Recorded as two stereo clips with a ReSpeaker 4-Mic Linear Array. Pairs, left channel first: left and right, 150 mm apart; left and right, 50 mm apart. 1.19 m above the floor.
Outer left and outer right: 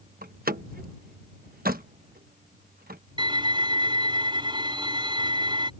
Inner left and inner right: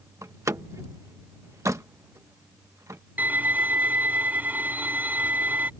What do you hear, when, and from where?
0.2 s a door slam: 85° right
3.2 s a violin: 35° right (ahead or behind)